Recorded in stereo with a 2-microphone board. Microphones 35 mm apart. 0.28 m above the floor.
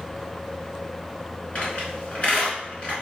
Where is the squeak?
40° left (ahead or behind), 1.8 m.